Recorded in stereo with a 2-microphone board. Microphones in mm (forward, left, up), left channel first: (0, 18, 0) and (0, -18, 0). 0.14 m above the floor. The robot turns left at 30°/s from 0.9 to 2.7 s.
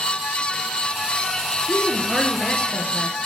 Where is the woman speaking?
50° left, 1.7 m; by 3.2 s 20° left, 1.7 m.